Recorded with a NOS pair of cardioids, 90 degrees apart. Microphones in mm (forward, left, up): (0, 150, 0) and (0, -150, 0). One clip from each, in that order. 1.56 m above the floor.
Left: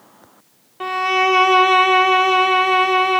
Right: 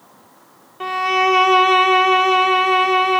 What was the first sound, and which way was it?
A violin, 5° left.